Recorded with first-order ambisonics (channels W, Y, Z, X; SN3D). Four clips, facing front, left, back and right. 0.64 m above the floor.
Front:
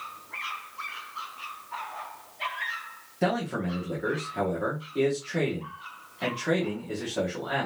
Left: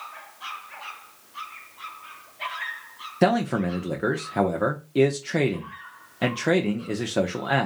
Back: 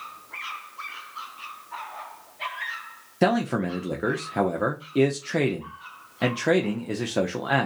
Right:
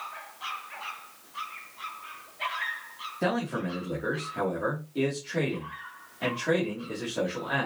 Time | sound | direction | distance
3.2 | a man speaking | 130° left | 0.8 m